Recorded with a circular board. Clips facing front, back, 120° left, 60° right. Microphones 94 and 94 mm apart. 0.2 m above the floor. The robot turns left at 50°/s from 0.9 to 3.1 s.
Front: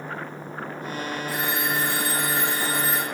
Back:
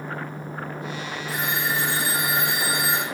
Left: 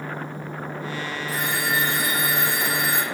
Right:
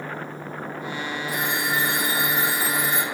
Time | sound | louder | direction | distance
1.3 | a phone ringing | back 2 dB, left 1 dB | 75° right | 4 m